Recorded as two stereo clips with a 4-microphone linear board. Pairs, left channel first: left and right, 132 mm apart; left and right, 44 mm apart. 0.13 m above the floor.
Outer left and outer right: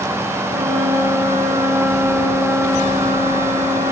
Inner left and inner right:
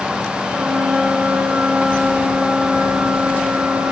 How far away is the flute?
About 5.5 m.